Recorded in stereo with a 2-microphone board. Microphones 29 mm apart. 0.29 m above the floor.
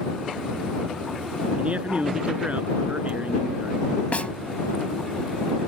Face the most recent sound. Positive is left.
turn(degrees=55)  # may be behind; listen again after turning